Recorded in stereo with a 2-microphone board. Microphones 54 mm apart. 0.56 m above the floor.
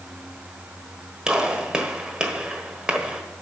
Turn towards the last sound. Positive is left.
turn(degrees=-15)  # may be behind; listen again after turning